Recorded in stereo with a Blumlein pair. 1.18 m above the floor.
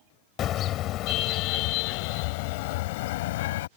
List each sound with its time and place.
0.4 s a car horn: 30° left; by 3.7 s 55° left